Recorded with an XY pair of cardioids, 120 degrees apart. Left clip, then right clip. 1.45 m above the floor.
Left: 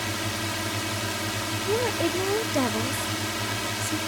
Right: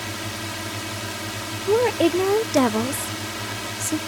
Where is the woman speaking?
45° right.